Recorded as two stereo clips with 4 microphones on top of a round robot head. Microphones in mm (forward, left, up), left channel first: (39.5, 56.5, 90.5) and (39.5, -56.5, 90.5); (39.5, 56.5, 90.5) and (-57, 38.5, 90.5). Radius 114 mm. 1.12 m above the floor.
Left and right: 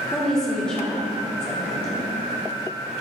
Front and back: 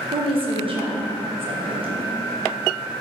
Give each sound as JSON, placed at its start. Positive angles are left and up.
{"t": 0.1, "sound": "a woman speaking", "azimuth_deg": 175, "distance_m": 1.2}